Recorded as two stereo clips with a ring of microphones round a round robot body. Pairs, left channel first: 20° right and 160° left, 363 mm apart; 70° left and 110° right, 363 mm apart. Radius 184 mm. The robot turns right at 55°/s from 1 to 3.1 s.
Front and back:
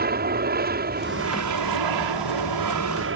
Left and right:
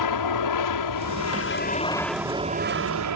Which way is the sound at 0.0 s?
95° left.